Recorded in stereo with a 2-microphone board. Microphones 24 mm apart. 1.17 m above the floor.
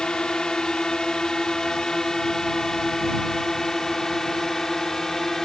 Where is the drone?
35° left (ahead or behind); by 5.5 s 15° left (ahead or behind).